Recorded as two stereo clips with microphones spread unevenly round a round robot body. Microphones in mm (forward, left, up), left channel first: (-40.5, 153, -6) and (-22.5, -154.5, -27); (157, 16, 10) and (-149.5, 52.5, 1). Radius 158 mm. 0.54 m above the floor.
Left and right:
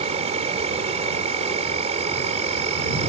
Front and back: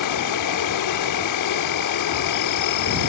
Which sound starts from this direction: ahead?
An insect, at 0.0 s.